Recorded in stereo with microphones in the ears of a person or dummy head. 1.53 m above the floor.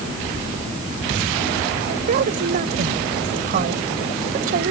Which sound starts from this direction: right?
A woman speaking, at 1.8 s.